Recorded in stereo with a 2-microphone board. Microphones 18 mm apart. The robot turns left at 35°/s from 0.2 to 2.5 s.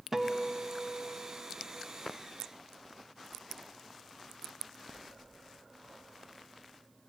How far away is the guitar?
About 0.9 m.